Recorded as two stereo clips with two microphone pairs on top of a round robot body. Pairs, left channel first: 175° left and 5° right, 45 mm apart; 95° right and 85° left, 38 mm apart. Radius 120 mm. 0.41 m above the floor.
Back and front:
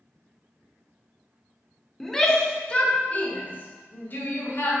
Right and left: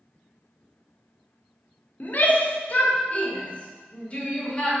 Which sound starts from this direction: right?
A shout, at 2.0 s.